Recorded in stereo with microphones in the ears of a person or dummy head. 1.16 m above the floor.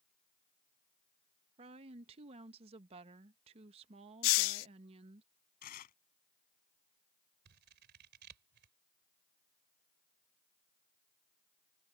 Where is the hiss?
70° left (ahead or behind).